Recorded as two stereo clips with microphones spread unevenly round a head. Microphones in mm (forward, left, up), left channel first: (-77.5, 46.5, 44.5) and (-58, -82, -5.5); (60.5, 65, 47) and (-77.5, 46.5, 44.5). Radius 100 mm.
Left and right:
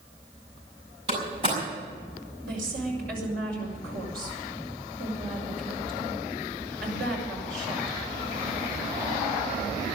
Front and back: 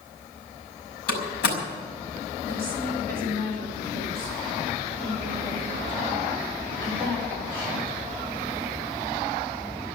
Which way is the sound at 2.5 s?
70° right.